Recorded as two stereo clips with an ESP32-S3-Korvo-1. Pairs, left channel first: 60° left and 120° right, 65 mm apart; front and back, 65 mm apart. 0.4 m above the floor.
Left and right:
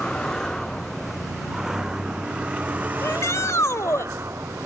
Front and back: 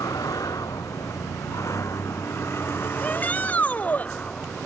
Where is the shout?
55° left.